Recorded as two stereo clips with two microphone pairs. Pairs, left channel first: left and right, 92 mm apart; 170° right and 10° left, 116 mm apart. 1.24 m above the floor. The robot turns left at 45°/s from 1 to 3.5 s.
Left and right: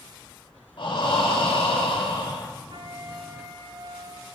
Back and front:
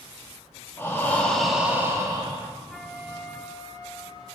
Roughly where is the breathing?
Behind left.